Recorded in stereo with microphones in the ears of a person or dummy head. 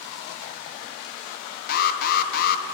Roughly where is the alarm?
Left.